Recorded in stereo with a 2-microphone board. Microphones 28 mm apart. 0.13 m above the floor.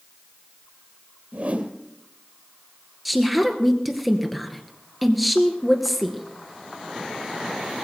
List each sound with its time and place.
1.3 s a whoosh: 60° right (ahead or behind), 1.8 m
3.0 s a woman speaking: centre (ahead or behind), 2 m